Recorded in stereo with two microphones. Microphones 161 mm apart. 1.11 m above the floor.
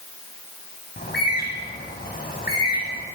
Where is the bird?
70° left (ahead or behind), 8 m.